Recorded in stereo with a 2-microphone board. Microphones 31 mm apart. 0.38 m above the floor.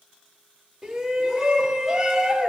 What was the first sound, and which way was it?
A shout, 10° right (ahead or behind).